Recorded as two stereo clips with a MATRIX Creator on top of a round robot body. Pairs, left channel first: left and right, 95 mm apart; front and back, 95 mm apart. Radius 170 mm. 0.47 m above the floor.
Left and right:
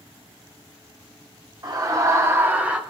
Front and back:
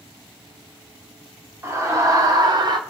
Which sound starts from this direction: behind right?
A scream, at 1.6 s.